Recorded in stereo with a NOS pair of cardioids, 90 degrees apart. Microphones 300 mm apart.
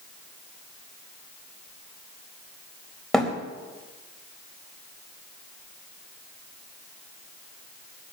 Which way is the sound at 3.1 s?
Straight ahead.